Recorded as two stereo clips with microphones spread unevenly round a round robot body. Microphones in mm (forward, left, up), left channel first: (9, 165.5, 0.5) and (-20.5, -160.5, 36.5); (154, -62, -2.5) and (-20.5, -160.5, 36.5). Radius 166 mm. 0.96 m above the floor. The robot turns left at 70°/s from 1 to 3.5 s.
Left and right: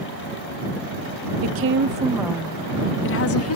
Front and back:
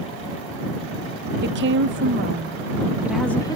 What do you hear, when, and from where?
1.4 s a woman speaking: 125° right; by 3.6 s 85° left